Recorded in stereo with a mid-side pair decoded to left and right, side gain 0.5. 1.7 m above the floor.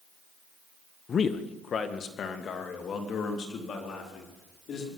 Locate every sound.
1.1 s a man speaking: 45° left, 1.3 m; by 4.9 s 55° left, 5 m